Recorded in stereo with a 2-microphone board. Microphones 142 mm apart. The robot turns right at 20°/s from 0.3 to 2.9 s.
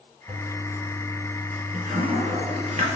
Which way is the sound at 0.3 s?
35° right (ahead or behind).